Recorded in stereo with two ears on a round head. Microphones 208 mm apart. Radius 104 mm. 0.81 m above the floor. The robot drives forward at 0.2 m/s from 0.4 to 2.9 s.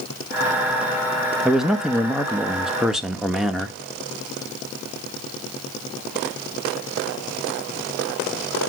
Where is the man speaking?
Centre (ahead or behind), 1.0 m.